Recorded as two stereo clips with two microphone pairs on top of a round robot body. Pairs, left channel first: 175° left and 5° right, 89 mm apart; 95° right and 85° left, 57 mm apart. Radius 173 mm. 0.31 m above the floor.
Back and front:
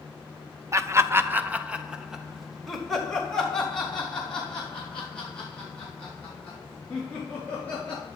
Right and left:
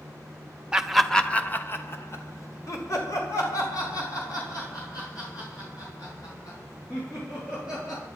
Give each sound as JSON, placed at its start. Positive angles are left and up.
{"t": 0.7, "sound": "laughter", "azimuth_deg": 20, "distance_m": 1.2}